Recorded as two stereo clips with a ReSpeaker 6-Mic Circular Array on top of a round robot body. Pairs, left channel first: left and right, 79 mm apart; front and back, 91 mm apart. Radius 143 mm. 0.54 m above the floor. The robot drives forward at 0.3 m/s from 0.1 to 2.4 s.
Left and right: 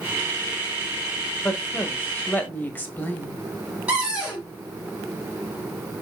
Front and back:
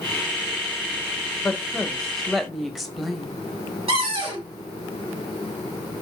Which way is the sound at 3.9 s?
165° right.